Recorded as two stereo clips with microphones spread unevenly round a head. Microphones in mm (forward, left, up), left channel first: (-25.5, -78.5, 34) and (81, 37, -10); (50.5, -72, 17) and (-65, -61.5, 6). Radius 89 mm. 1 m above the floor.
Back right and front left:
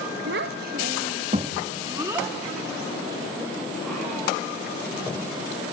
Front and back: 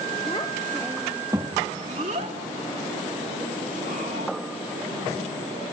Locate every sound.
0.3 s a child speaking: 60° left, 0.9 m; by 4.3 s 140° left, 3 m